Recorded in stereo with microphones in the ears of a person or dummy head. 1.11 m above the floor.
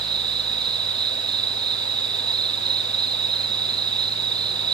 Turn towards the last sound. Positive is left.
turn(degrees=-30)  # may be behind; listen again after turning